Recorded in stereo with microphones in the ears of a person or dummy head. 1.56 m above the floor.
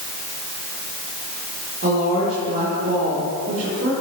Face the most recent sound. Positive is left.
turn(degrees=-45)  # may be behind; listen again after turning